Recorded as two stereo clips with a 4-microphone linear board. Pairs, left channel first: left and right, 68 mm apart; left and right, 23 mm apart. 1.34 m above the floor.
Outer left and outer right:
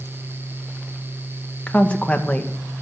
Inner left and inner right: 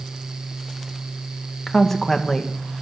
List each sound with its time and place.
1.7 s a woman speaking: 15° left (ahead or behind), 1.6 m